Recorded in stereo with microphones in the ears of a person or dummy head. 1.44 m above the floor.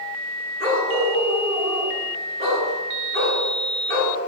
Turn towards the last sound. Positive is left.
turn(degrees=-50)  # may be behind; listen again after turning